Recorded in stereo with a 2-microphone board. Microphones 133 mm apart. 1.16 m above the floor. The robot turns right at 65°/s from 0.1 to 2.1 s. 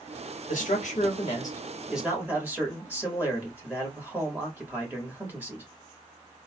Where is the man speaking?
90° left, 1.8 m; by 5.6 s 165° right, 1.8 m.